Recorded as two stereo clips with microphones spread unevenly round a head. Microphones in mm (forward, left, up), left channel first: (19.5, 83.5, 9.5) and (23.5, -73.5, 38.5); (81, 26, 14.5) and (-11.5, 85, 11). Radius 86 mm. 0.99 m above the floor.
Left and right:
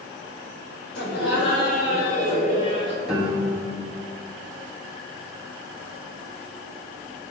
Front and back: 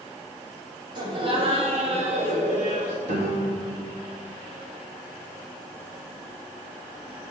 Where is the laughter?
100° left, 2.5 m; by 3.0 s 160° left, 1.9 m.